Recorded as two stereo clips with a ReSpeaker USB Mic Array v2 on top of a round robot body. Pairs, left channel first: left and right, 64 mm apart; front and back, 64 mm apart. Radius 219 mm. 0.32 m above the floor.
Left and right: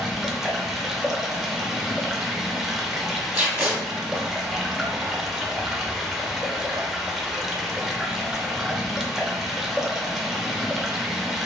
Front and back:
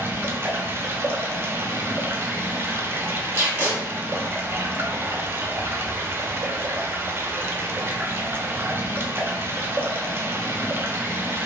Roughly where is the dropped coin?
I don't hear a dropped coin.